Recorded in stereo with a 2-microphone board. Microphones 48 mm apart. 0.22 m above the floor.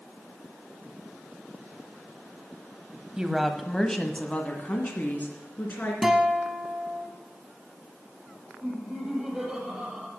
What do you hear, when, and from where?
3.2 s a woman speaking: 15° right (ahead or behind), 1.0 m; by 5.9 s 45° left (ahead or behind), 2.5 m
6.0 s a guitar: 10° right (ahead or behind), 1.2 m
8.6 s laughter: 10° right (ahead or behind), 6 m